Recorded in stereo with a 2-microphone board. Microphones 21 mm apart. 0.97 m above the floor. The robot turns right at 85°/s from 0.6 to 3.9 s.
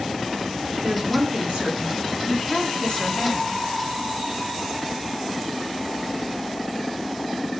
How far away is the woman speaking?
About 2 m.